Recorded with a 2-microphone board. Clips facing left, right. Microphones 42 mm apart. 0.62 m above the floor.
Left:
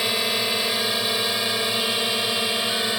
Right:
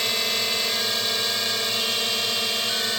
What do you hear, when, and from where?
0.0 s a drone: 10° left (ahead or behind); by 3.0 s 15° left (ahead or behind)